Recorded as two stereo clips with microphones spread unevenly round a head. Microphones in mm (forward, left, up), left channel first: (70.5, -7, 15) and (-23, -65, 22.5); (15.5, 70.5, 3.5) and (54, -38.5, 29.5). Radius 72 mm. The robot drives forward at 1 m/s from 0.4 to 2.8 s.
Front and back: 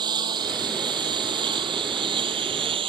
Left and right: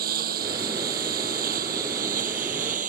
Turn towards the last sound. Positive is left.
turn(degrees=-110)